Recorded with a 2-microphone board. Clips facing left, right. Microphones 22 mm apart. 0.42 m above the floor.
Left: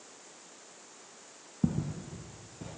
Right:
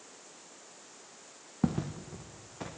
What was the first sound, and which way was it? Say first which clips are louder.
Footsteps: even; 50° right (ahead or behind).